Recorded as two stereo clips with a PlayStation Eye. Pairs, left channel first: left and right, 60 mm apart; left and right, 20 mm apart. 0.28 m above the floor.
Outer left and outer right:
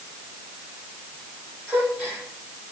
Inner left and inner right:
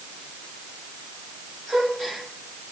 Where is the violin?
No violin in this recording.